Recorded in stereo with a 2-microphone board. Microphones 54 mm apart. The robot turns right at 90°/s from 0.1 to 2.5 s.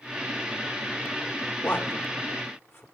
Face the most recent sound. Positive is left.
turn(degrees=50)  # may be behind; listen again after turning